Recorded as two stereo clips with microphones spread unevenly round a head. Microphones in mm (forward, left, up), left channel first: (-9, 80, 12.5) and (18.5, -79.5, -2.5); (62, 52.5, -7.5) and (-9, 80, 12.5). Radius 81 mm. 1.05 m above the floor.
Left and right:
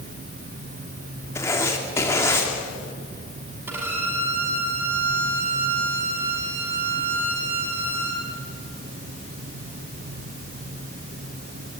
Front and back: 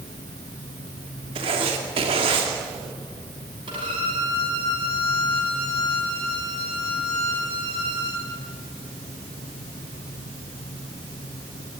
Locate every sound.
1.4 s writing: 175° left, 3 m
3.7 s a violin: 160° right, 4.5 m